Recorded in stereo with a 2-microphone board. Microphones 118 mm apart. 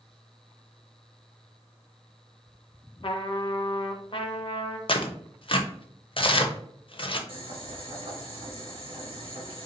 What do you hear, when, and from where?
3.0 s a trumpet: 50° left (ahead or behind), 0.6 m
4.9 s tearing paper: 50° left (ahead or behind), 0.5 m
7.3 s boiling: 50° right (ahead or behind), 1.7 m